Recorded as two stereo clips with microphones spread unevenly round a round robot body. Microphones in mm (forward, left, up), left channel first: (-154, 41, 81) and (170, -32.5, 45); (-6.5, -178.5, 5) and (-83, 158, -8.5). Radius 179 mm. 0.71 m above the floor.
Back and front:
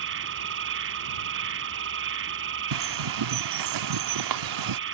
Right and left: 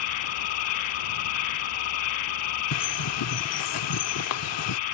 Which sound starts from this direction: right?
An insect, at 0.0 s.